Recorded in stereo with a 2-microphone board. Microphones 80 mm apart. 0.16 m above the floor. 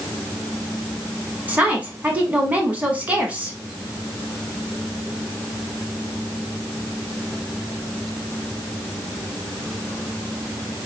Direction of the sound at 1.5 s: 20° right (ahead or behind).